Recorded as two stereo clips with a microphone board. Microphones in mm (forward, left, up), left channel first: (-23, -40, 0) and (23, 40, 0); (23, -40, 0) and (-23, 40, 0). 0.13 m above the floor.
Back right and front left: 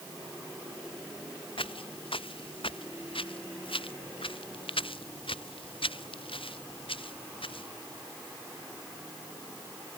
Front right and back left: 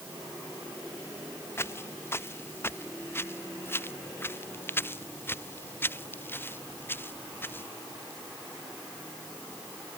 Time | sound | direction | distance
1.6 | footsteps | 120° right | ?